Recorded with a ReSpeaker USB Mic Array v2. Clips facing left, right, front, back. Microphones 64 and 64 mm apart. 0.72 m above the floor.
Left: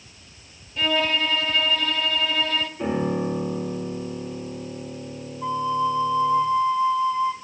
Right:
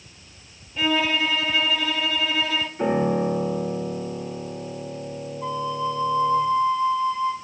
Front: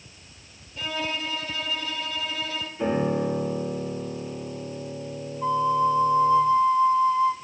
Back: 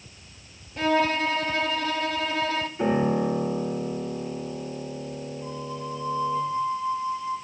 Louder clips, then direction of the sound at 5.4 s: Left 4 dB, front 18 dB; 10° left.